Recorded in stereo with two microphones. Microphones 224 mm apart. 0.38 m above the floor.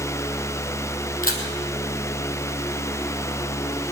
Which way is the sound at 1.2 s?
40° left (ahead or behind).